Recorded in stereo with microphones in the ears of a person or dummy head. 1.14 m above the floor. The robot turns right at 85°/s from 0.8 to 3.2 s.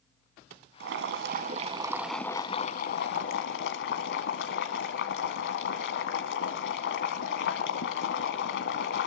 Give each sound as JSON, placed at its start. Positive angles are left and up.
{"t": 0.8, "sound": "boiling", "azimuth_deg": -110, "distance_m": 2.0}